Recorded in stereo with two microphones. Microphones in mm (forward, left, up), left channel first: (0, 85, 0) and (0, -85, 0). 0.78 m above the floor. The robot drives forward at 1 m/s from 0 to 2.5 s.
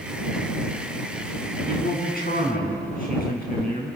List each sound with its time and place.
1.7 s a man speaking: 60° left (ahead or behind), 6.5 m; by 4.0 s 55° left (ahead or behind), 7 m